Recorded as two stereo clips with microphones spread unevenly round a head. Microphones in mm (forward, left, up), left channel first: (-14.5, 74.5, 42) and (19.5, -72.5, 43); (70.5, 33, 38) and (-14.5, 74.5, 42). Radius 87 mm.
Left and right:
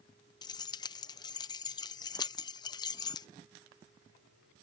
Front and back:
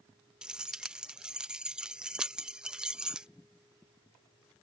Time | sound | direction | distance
0.4 | keys jangling | 90° left | ?